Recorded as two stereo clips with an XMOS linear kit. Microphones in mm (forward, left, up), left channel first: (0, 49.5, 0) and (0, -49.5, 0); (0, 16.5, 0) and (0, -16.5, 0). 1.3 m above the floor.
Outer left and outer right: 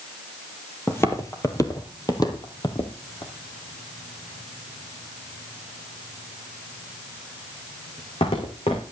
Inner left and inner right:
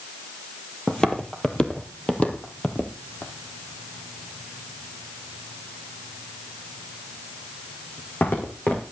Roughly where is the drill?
I don't hear a drill.